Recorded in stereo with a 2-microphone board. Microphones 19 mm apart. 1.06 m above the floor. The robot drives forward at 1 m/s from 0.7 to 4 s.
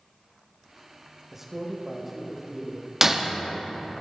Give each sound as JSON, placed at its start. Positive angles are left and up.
{"t": 1.3, "sound": "a man speaking", "side_deg": -20, "distance_m": 0.9}
{"t": 3.0, "sound": "breaking glass", "side_deg": -25, "distance_m": 0.7}